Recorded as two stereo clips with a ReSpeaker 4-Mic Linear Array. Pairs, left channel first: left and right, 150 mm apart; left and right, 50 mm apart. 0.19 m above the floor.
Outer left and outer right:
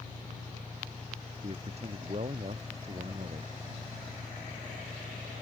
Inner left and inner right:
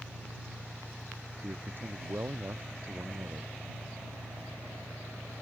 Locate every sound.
0.0 s an engine running: 10° right (ahead or behind)
1.4 s a man speaking: 45° right (ahead or behind)